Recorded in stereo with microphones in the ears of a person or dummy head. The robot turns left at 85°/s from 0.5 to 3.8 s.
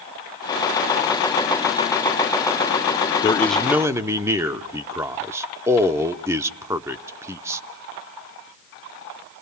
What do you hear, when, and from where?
3.2 s a man speaking: 30° left, 0.5 m; by 7.6 s 20° right, 0.5 m